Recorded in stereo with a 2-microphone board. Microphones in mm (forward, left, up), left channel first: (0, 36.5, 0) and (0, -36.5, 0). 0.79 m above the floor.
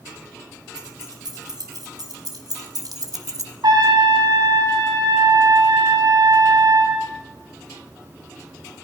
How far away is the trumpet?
About 7 m.